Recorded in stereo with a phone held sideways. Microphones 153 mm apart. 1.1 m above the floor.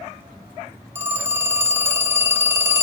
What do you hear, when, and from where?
0.9 s a phone ringing: 15° right (ahead or behind), 0.9 m